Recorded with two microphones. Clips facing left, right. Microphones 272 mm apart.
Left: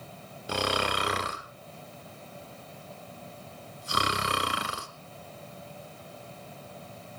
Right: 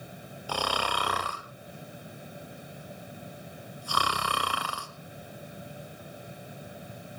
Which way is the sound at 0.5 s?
25° left (ahead or behind).